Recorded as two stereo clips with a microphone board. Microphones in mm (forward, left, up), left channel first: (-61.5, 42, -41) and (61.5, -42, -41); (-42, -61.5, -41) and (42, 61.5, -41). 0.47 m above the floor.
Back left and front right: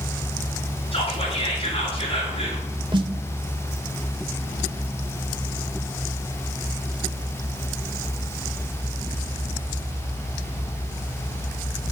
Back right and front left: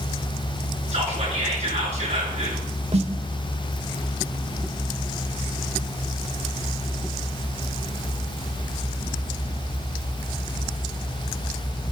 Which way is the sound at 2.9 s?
20° left.